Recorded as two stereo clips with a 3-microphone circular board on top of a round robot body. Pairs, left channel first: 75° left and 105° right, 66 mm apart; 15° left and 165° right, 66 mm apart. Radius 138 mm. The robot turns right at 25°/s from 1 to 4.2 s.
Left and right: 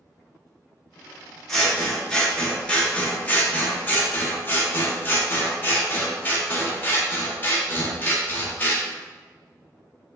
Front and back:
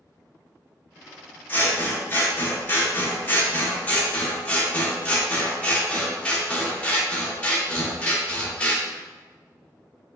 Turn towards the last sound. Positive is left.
turn(degrees=60)